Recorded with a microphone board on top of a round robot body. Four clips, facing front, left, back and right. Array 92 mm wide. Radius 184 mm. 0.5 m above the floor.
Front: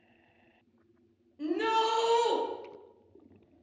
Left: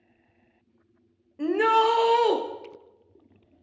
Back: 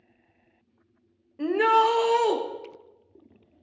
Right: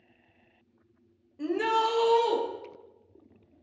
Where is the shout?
145° left, 1.4 m; by 2.4 s 120° left, 1.5 m.